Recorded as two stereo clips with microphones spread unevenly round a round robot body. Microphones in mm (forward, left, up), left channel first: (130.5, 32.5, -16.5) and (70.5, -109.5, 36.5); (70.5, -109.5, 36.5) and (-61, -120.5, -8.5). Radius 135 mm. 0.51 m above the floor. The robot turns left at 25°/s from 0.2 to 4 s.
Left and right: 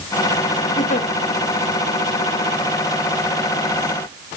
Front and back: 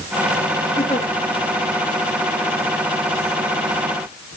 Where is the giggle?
75° left, 2 m; by 1.1 s 70° left, 2 m.